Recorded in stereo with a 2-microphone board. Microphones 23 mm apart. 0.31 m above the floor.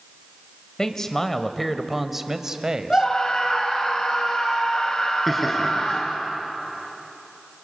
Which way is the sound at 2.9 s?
35° left (ahead or behind).